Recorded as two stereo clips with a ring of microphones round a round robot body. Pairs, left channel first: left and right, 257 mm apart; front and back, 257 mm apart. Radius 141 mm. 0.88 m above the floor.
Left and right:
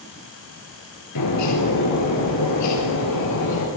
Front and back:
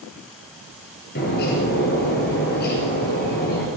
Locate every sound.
1.1 s a bird: 60° left, 2.5 m